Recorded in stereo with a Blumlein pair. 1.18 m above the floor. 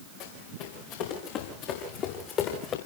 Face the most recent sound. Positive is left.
turn(degrees=30)